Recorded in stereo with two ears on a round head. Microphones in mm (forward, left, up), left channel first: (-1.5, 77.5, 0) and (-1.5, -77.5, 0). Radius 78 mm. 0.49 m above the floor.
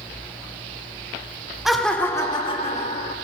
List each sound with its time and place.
1.6 s laughter: 5° right (ahead or behind), 1.3 m; by 3.1 s 50° left (ahead or behind), 1.5 m